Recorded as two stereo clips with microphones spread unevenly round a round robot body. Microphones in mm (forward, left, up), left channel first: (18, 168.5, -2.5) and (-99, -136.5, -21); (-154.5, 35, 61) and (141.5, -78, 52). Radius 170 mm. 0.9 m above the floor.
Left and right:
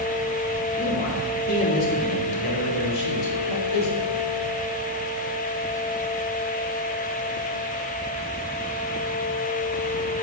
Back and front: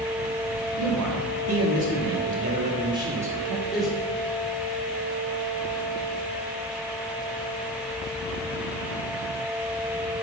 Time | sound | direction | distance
0.8 | a man speaking | 5° left | 1.9 m